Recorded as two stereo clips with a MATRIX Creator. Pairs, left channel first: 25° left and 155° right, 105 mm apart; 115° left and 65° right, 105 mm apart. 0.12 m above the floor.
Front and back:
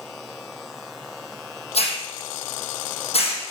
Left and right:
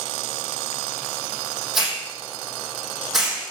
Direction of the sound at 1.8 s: 20° left.